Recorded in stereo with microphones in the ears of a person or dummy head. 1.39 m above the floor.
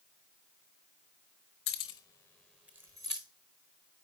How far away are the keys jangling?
About 0.8 m.